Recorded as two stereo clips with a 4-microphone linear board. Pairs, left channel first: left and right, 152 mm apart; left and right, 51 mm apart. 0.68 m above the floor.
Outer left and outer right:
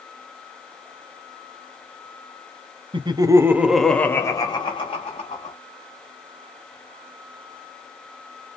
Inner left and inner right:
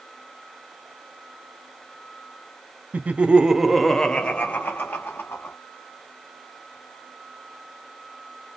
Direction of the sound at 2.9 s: 35° right (ahead or behind).